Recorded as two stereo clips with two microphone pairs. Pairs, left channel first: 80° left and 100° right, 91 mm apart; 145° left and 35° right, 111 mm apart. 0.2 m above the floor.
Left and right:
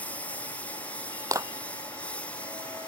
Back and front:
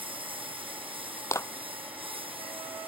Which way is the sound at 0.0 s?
5° left.